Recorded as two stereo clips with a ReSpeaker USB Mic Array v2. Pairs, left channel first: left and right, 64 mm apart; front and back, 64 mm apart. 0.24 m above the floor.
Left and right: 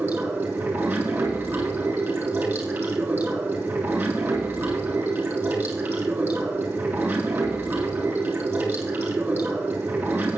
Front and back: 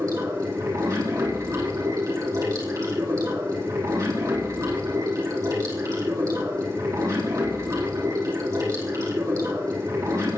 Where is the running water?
150° right, 3.5 m.